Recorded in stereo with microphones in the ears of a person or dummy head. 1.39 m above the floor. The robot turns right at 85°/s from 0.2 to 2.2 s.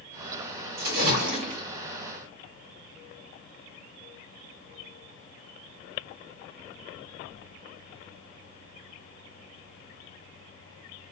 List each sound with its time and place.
0.8 s a splash: 95° right, 2.5 m; by 1.6 s 25° right, 2.5 m